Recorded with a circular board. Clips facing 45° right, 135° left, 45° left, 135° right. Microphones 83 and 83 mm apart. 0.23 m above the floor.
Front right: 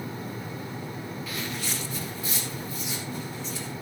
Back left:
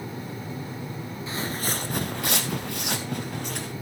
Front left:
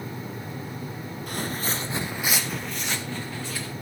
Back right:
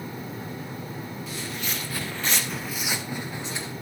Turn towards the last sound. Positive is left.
turn(degrees=160)